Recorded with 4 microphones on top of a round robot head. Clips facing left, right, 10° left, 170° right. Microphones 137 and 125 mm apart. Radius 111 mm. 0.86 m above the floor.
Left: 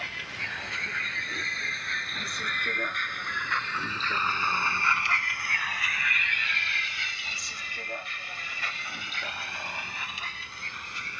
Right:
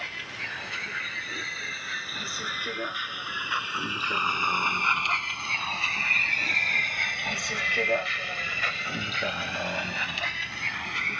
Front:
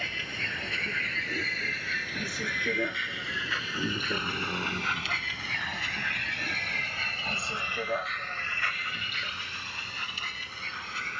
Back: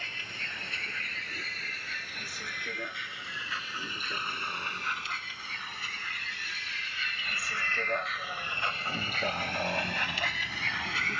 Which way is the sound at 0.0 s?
Straight ahead.